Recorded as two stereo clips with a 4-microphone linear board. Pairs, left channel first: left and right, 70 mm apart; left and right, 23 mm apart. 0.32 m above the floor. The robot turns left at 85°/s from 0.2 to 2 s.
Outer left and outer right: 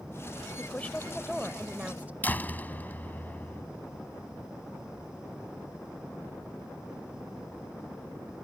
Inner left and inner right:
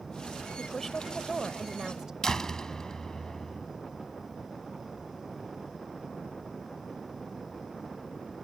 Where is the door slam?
25° left (ahead or behind).